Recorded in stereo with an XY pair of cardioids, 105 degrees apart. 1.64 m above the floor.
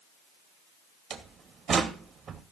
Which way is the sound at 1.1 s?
55° right.